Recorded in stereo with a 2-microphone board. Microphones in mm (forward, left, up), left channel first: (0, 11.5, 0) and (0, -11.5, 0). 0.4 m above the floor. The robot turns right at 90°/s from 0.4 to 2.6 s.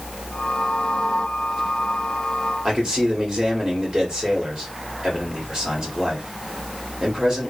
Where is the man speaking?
40° right (ahead or behind), 1.3 m.